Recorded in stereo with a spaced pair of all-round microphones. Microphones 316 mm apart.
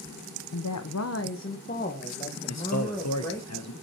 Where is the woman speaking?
75° left (ahead or behind), 0.6 m; by 3.5 s 10° left (ahead or behind), 1.9 m.